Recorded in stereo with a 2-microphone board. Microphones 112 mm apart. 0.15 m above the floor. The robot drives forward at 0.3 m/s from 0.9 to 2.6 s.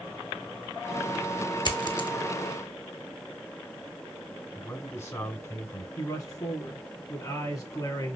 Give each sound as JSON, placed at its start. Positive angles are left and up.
{"t": 1.6, "sound": "a dropped coin", "side_deg": 45, "distance_m": 0.8}
{"t": 4.5, "sound": "a man speaking", "side_deg": 25, "distance_m": 1.3}
{"t": 6.0, "sound": "a man speaking", "side_deg": 35, "distance_m": 2.5}